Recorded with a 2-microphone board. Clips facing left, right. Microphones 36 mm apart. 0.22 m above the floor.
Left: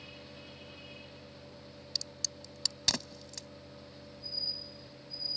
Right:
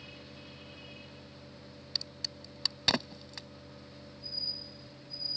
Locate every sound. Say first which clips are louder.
1.9 s a crack: right 2 dB; 30° right (ahead or behind)